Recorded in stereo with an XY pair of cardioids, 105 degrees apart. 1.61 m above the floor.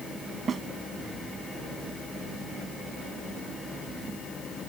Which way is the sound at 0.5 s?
50° right.